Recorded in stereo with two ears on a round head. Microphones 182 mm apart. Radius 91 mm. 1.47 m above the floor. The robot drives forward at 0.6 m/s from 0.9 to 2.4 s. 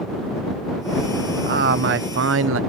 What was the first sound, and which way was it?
A man speaking, 45° right (ahead or behind).